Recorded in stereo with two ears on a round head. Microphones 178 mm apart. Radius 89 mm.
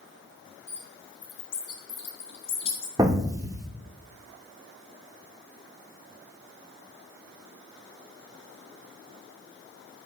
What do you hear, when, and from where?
0.7 s a bird: 35° left (ahead or behind), 1.8 m
3.0 s an explosion: 20° right (ahead or behind), 0.9 m